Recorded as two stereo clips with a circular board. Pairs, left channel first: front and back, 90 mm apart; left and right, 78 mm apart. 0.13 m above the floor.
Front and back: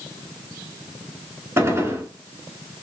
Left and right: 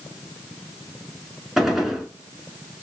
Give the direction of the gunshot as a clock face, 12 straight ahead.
6 o'clock.